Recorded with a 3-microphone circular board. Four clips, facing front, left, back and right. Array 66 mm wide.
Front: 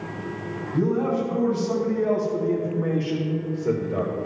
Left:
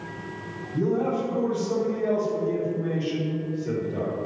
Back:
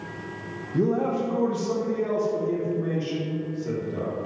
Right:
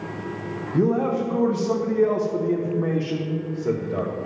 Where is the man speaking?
115° right, 1.6 m; by 4.1 s 40° right, 1.7 m.